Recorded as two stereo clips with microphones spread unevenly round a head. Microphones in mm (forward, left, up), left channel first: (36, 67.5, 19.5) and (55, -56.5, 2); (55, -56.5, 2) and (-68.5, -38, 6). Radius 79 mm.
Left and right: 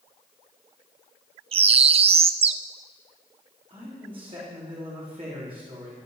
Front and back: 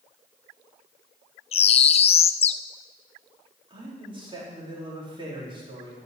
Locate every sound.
1.5 s a bird: 45° right, 0.6 m
3.7 s a man speaking: 140° right, 4 m